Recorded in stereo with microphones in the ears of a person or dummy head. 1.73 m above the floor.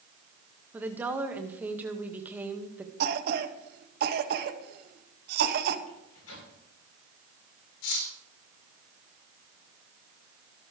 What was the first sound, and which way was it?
A woman speaking, 5° right (ahead or behind).